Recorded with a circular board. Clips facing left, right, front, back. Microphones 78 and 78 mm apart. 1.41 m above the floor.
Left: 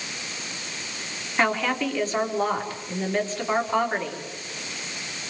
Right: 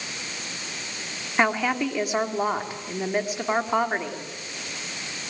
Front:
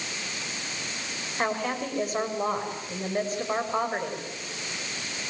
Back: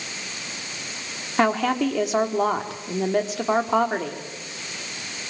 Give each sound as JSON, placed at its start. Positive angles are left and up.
{"t": 1.4, "sound": "a woman speaking", "azimuth_deg": -170, "distance_m": 4.0}